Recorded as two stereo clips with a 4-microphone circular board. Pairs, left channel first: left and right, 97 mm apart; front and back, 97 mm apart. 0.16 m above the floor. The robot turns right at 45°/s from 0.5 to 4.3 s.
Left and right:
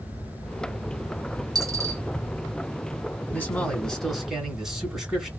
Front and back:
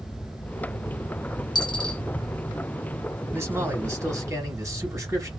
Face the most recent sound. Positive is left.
turn(degrees=-175)